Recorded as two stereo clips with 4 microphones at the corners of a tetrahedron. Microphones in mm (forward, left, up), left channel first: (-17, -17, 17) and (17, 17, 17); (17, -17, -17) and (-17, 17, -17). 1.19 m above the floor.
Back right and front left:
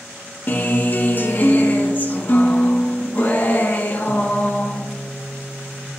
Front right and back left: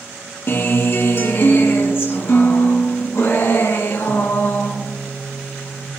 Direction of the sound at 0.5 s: 85° right.